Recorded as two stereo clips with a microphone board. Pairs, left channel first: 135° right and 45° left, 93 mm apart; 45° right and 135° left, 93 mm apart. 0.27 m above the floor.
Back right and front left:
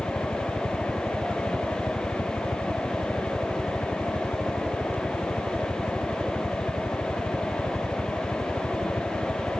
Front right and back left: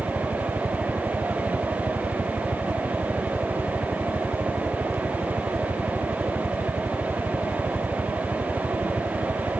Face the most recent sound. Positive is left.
turn(degrees=180)